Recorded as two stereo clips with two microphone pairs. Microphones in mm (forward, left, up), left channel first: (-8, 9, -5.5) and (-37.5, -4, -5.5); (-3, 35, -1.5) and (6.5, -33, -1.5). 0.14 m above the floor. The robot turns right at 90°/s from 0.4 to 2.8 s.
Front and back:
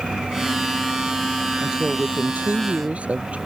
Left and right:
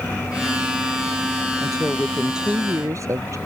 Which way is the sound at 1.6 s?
135° left.